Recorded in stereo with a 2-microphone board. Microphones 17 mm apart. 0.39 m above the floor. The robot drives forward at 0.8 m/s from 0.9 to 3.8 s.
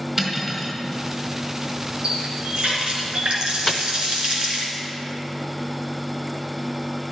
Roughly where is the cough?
No cough in this recording.